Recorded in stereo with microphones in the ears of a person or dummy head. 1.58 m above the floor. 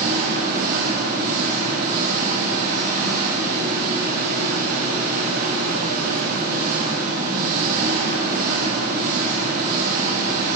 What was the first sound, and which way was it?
An engine running, 50° right (ahead or behind).